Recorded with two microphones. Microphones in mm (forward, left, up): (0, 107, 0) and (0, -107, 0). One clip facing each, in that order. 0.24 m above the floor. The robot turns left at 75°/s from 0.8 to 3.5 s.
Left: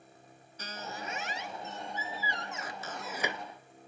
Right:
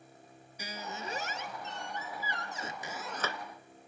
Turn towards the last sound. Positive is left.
turn(degrees=145)